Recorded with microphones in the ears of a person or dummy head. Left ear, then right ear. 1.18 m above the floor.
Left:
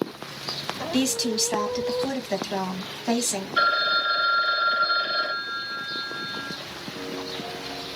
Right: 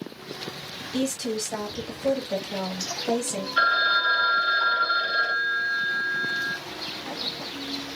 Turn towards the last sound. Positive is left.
turn(degrees=0)  # may be behind; listen again after turning